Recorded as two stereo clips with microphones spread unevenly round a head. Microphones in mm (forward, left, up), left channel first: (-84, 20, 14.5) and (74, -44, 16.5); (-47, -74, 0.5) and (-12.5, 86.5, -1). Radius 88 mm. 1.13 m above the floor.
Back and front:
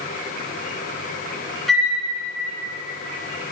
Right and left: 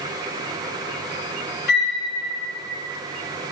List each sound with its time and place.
1.7 s a flute: 115° right, 2.5 m